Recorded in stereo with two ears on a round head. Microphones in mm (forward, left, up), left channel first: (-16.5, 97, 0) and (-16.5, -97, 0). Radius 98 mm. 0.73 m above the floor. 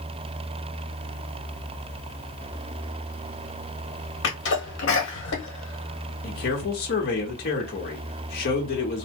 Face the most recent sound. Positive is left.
turn(degrees=50)  # may be behind; listen again after turning